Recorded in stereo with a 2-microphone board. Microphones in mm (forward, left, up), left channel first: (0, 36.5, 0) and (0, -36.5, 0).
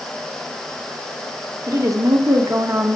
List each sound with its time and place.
1.7 s a woman speaking: 45° right (ahead or behind), 1.2 m